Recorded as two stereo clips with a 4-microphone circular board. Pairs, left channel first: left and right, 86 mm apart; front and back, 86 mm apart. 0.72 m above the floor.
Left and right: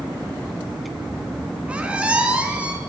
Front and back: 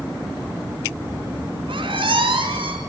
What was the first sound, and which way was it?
A squeak, 165° right.